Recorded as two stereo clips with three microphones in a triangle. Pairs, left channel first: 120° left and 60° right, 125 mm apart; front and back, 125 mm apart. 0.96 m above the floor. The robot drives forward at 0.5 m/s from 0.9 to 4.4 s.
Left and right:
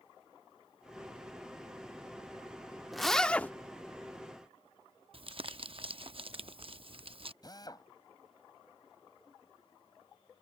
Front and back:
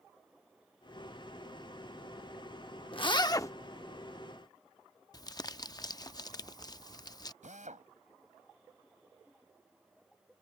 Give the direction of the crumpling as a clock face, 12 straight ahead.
2 o'clock.